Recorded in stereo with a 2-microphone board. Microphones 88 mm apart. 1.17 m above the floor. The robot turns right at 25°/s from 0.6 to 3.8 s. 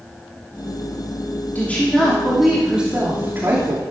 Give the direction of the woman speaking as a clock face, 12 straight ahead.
7 o'clock.